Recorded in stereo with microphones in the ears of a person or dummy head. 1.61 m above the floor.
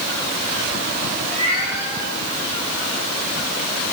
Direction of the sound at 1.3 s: 40° right (ahead or behind).